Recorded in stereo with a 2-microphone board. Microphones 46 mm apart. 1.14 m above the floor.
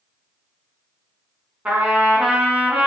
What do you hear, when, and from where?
1.6 s a trumpet: 35° right (ahead or behind), 1.5 m